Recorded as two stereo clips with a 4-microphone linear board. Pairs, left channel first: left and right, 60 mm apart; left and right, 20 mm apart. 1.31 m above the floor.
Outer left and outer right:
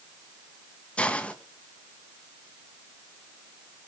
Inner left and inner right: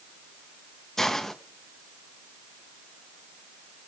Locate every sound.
1.0 s a hiss: 20° left (ahead or behind), 1.4 m